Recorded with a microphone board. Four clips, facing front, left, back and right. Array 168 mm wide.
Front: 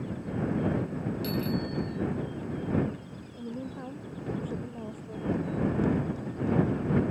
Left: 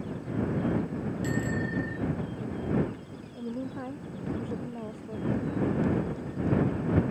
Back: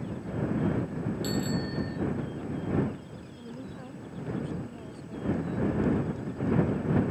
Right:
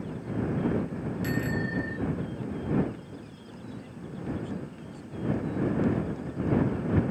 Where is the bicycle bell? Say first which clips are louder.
Right 1 dB, front 1 dB; 110° right.